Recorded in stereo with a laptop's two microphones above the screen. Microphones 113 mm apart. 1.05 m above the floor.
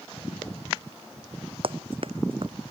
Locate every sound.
1.6 s running footsteps: 55° right (ahead or behind)